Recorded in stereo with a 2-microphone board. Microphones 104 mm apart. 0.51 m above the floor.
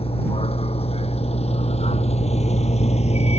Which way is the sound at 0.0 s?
65° left (ahead or behind).